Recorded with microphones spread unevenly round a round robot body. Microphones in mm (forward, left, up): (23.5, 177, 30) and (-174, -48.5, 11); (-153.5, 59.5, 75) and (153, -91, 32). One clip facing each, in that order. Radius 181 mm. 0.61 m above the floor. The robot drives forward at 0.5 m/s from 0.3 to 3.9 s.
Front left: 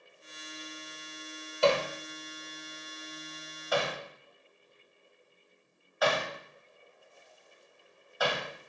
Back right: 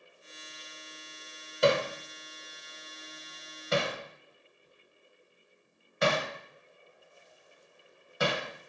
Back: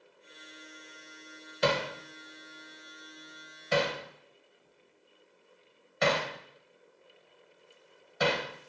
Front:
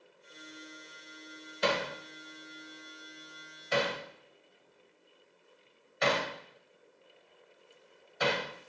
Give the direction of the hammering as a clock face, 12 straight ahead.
7 o'clock.